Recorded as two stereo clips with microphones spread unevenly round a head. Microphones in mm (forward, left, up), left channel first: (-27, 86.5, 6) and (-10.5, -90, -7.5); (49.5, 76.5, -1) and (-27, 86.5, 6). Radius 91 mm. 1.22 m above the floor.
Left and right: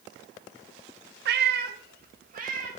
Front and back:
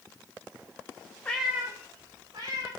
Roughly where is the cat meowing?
Right.